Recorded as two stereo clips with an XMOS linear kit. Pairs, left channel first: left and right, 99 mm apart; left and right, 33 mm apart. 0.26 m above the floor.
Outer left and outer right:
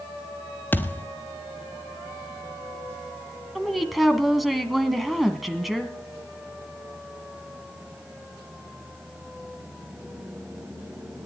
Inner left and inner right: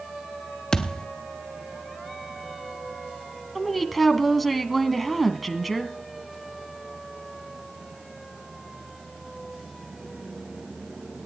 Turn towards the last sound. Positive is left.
turn(degrees=0)  # may be behind; listen again after turning